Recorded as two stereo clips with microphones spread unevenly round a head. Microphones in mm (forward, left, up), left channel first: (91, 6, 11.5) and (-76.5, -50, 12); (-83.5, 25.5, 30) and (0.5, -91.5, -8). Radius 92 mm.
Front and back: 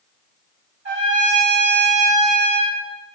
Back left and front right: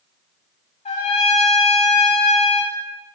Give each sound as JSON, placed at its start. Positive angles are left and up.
{"t": 0.8, "sound": "a trumpet", "azimuth_deg": 165, "distance_m": 2.0}